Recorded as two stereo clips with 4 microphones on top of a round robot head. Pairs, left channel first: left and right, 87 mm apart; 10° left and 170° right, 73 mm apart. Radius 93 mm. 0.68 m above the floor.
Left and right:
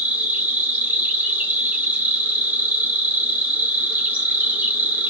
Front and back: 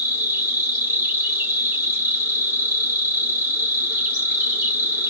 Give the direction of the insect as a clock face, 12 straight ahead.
5 o'clock.